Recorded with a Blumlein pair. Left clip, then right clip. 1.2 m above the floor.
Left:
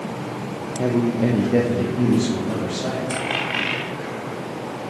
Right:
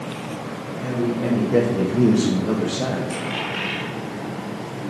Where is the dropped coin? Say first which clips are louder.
Left 3 dB; 65° left, 3 m.